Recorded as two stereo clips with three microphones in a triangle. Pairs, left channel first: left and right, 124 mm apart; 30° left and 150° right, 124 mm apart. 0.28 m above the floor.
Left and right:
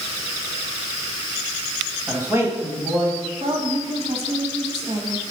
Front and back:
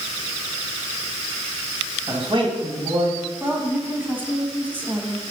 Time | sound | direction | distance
2.1 | a man speaking | 150° right | 2 m
3.4 | a woman speaking | 75° right | 1.8 m